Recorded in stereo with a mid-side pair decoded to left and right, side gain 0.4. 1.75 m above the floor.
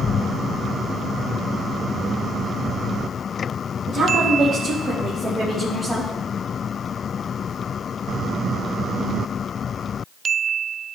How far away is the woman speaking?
About 1.5 m.